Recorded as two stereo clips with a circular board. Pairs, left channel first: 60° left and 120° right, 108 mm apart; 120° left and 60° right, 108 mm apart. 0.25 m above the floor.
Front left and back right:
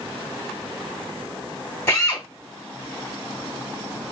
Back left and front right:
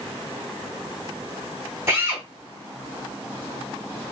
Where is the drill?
Straight ahead, 2 m.